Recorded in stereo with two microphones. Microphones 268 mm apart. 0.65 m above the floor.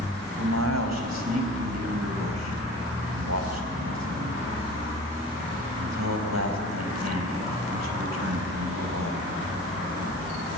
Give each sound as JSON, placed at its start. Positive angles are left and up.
{"t": 0.4, "sound": "a man speaking", "side_deg": -75, "distance_m": 4.5}